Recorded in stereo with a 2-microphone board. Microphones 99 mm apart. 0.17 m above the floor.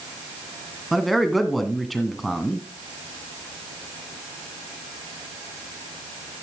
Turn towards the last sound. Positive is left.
turn(degrees=0)  # may be behind; listen again after turning